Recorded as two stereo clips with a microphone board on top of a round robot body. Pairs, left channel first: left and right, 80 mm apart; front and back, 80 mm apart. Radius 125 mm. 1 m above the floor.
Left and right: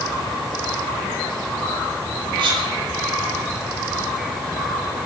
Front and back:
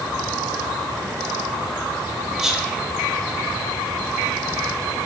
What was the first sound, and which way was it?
Whispering, 95° right.